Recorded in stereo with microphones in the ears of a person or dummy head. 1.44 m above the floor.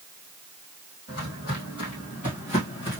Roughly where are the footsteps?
Left.